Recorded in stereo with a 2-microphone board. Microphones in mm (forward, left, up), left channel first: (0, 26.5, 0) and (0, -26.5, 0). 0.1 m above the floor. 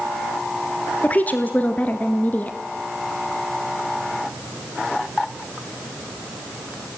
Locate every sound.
1.0 s a woman speaking: 30° left (ahead or behind), 1.2 m